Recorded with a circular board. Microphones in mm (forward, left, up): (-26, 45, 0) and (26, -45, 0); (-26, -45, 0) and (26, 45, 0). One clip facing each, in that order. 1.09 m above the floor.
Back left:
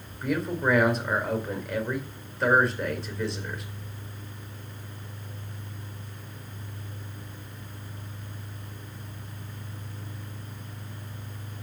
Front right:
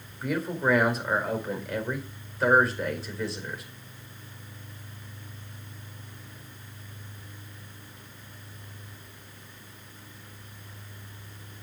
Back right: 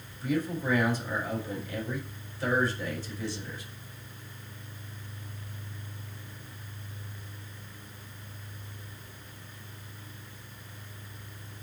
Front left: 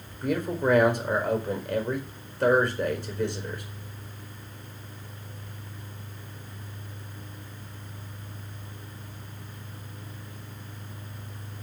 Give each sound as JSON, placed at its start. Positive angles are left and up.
{"t": 0.2, "sound": "a man speaking", "azimuth_deg": 30, "distance_m": 4.5}